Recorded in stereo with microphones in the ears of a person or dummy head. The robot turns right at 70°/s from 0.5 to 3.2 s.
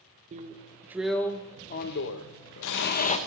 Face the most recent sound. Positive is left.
turn(degrees=150)